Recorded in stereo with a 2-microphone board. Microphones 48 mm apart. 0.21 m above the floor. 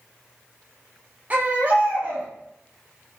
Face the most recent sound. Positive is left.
turn(degrees=-30)  # may be behind; listen again after turning